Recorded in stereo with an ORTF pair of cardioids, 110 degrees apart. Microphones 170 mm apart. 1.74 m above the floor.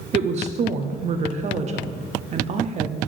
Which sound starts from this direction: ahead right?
A woman speaking, at 0.1 s.